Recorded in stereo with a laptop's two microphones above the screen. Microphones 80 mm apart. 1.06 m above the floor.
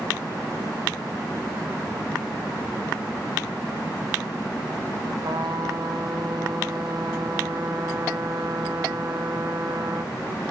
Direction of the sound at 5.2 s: 70° right (ahead or behind).